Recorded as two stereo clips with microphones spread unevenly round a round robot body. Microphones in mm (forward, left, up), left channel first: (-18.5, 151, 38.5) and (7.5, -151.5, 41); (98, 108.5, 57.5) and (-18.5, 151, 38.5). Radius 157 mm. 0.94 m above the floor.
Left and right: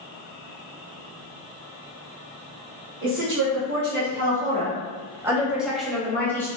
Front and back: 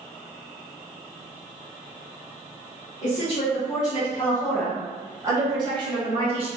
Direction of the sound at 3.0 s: 45° right.